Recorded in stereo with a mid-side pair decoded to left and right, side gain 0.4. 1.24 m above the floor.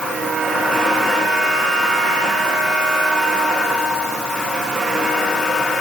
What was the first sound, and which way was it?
Only background noise.